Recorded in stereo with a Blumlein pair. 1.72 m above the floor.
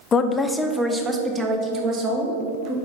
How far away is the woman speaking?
About 0.9 m.